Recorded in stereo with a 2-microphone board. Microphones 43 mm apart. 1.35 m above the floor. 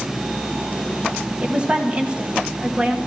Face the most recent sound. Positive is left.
turn(degrees=-30)  # may be behind; listen again after turning